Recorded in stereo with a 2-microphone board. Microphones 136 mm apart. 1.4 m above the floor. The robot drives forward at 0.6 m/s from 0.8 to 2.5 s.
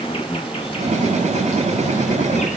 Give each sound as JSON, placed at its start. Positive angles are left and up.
{"t": 0.0, "sound": "an insect", "side_deg": 50, "distance_m": 3.0}